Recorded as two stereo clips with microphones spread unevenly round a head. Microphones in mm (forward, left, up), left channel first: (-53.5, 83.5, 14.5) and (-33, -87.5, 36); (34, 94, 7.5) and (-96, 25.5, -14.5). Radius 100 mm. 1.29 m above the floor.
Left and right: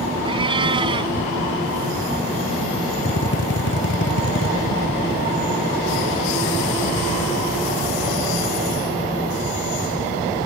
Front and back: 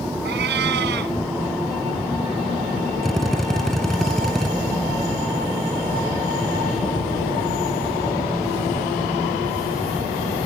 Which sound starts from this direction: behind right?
A cat meowing, at 0.2 s.